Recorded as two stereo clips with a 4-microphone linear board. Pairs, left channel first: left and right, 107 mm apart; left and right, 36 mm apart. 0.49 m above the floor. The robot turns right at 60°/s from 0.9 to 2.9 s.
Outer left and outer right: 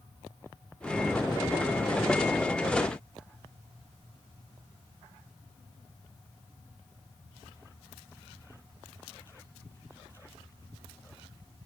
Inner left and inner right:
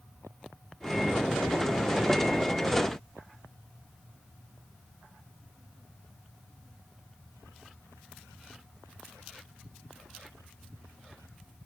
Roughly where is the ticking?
I don't hear ticking.